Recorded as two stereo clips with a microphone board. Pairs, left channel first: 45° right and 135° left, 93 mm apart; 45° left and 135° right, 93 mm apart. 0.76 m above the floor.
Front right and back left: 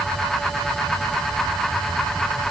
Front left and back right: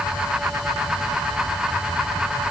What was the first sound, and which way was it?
Only background noise.